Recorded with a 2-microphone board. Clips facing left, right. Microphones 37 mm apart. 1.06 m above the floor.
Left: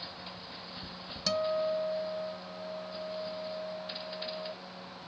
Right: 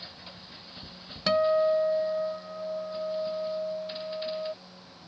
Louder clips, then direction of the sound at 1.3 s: Right 7 dB; 30° right (ahead or behind).